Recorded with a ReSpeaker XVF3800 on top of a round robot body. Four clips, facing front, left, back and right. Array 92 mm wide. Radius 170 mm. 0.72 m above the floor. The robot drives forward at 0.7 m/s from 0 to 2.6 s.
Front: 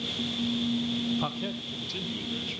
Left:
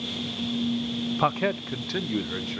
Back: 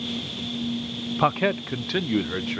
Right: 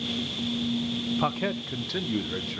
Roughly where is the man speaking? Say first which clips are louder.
Left 5 dB, back 11 dB; behind left.